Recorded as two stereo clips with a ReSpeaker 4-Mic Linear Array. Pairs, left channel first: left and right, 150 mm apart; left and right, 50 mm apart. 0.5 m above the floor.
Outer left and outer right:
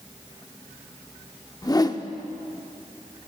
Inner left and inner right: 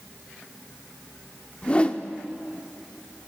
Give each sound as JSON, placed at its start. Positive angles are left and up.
{"t": 1.6, "sound": "a whoosh", "side_deg": 25, "distance_m": 0.6}